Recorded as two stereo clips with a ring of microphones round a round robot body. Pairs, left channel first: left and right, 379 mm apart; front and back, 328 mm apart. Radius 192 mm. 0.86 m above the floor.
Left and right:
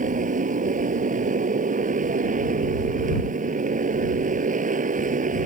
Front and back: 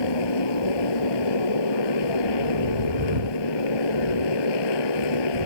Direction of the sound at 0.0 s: 20° right.